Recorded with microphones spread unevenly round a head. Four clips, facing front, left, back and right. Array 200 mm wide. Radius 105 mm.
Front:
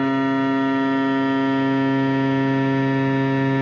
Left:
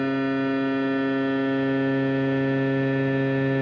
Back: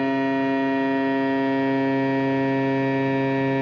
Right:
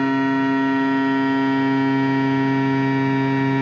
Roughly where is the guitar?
No guitar in this recording.